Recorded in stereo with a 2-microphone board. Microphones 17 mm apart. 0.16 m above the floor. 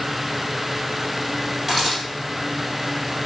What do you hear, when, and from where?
1.7 s a camera shutter: 5° right (ahead or behind), 4 m